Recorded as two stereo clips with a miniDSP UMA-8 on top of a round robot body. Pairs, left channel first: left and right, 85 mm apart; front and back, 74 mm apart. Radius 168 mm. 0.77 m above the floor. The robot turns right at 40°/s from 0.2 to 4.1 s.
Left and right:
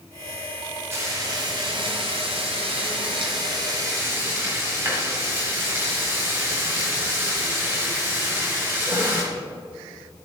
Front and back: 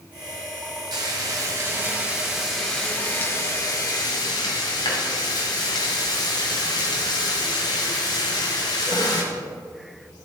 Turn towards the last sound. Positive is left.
turn(degrees=-25)